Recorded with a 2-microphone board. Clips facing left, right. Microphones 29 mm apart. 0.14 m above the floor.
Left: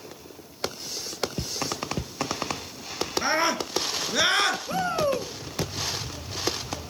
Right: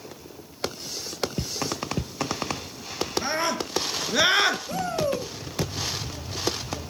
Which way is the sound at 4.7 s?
30° left (ahead or behind).